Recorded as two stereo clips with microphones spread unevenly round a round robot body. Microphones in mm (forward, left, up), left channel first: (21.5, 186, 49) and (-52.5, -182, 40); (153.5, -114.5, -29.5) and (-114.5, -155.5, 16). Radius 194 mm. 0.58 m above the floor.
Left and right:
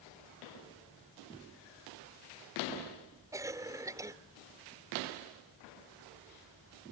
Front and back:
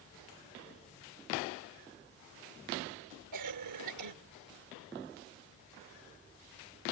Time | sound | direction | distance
3.3 | a cough | straight behind | ?